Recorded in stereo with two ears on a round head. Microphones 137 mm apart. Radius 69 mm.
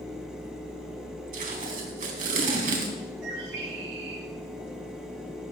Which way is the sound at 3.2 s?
85° right.